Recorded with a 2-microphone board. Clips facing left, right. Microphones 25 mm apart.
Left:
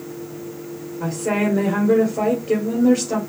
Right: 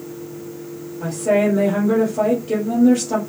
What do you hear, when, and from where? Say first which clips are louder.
1.0 s a woman speaking: right 4 dB; 30° left (ahead or behind), 2.0 m